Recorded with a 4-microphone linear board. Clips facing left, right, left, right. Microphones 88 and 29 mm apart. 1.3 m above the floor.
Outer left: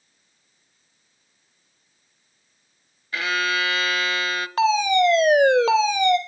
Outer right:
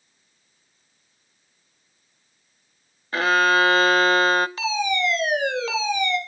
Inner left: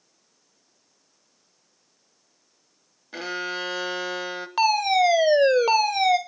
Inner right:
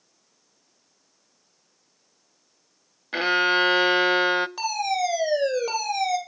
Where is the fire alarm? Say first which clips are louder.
Outer left 6 dB, inner left 6 dB; 55° left (ahead or behind), 2 m.